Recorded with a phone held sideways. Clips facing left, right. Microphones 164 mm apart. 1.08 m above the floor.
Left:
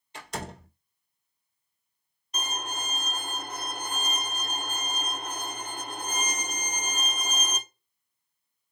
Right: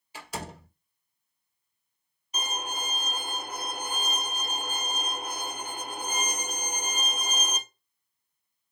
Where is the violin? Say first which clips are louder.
Right 1 dB; 10° right (ahead or behind), 0.7 m.